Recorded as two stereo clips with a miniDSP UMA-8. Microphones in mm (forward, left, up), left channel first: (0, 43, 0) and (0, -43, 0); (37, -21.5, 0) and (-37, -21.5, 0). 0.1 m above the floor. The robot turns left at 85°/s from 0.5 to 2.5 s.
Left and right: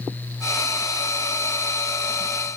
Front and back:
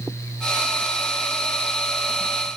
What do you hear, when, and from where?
Only background noise.